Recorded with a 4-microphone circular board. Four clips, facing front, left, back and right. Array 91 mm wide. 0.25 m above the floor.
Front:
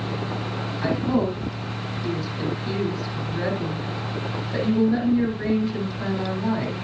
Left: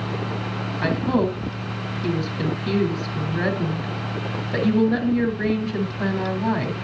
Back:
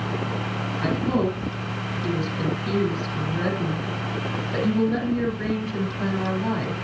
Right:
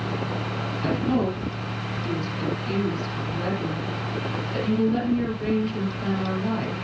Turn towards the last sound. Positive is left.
turn(degrees=95)